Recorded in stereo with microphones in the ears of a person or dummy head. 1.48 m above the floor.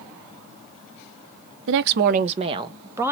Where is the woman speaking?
65° right (ahead or behind), 0.6 m; by 3.1 s 10° right (ahead or behind), 1.0 m.